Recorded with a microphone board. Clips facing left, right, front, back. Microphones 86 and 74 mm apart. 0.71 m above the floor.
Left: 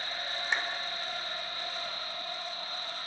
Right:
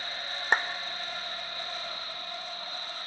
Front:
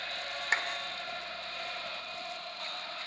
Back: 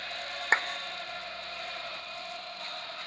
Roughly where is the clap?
Behind right.